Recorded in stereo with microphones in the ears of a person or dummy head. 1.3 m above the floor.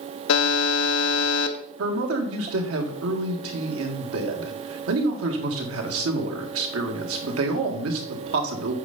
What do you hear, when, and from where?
0.3 s a buzzer: 70° left (ahead or behind), 0.8 m
1.8 s a man speaking: 70° right (ahead or behind), 1.7 m